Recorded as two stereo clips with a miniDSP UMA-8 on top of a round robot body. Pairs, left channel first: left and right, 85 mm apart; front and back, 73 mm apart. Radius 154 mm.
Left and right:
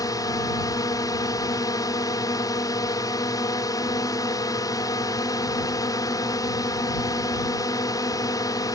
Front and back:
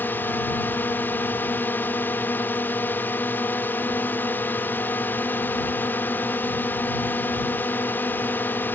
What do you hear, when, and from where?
0.0 s a drone: 55° left